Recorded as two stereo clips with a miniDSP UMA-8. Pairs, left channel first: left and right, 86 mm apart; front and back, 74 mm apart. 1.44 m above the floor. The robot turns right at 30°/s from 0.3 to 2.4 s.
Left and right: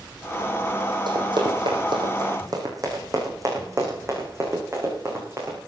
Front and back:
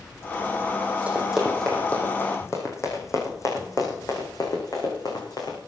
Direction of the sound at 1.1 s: 110° right.